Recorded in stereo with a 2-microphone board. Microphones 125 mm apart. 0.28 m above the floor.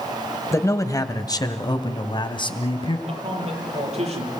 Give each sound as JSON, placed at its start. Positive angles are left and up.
{"t": 0.5, "sound": "a man speaking", "side_deg": 20, "distance_m": 1.5}
{"t": 3.1, "sound": "a man speaking", "side_deg": -55, "distance_m": 7.5}